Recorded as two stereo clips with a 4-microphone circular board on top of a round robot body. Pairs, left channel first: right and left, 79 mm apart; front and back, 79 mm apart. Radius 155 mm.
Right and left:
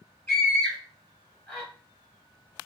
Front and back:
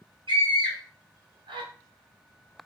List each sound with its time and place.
0.3 s a scream: 155° right, 2 m